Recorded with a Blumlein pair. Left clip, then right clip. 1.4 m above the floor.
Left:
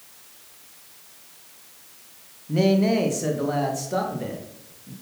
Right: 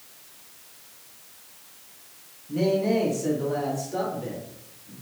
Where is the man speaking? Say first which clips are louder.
Left 2 dB; 65° left, 1.4 m; by 4.9 s 35° left, 2.5 m.